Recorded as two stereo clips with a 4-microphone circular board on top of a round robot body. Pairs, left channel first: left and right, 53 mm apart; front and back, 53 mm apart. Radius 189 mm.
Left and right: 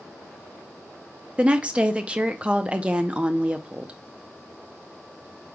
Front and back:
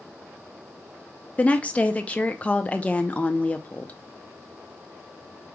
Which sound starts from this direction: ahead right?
A woman speaking, at 1.4 s.